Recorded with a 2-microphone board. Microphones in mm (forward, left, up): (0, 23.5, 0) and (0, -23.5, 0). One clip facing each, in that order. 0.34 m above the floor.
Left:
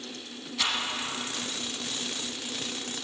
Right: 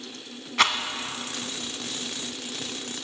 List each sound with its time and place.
0.6 s a rattle: 65° right (ahead or behind), 0.5 m